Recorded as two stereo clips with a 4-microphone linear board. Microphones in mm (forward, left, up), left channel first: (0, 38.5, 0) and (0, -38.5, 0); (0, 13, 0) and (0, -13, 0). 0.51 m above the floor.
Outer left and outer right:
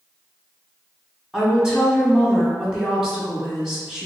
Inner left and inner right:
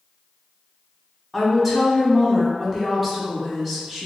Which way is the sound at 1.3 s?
5° right (ahead or behind).